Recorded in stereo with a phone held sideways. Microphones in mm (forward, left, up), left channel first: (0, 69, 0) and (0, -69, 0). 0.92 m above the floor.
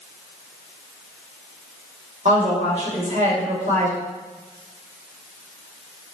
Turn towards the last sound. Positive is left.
turn(degrees=-55)  # may be behind; listen again after turning